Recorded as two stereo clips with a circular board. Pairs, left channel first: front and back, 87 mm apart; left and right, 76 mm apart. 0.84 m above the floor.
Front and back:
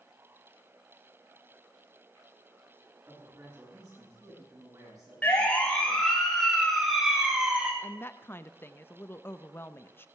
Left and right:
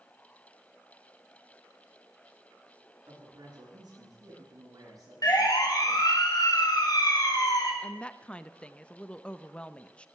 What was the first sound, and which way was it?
A man speaking, 125° right.